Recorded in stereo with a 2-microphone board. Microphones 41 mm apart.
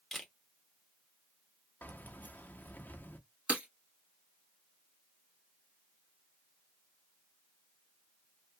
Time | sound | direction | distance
0.1 | a camera shutter | 5° left (ahead or behind) | 0.9 m
1.8 | keys jangling | 45° left (ahead or behind) | 0.7 m
3.5 | breaking glass | 30° right (ahead or behind) | 1.4 m